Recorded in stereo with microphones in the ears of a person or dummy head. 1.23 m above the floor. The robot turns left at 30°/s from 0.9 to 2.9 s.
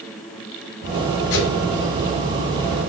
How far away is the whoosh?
About 4 m.